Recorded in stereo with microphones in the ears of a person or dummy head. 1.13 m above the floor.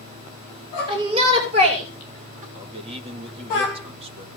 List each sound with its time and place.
0.9 s a shout: 30° right (ahead or behind), 2.5 m; by 2.5 s 45° right (ahead or behind), 2 m
2.5 s a man speaking: 35° right (ahead or behind), 1.4 m